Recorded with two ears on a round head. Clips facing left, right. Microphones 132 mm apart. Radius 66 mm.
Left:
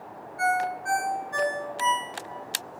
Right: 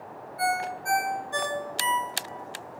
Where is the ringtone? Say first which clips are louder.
Left 2 dB; 35° right (ahead or behind), 3.5 m.